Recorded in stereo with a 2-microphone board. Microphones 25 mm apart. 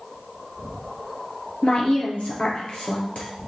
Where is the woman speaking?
55° left (ahead or behind), 4 m.